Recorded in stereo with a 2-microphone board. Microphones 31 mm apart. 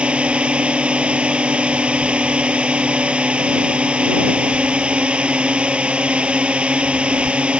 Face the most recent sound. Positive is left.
turn(degrees=-35)  # may be behind; listen again after turning